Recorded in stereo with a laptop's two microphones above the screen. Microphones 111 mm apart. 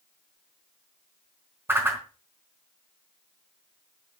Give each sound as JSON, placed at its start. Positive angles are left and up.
{"t": 1.7, "sound": "a whoosh", "side_deg": -20, "distance_m": 3.5}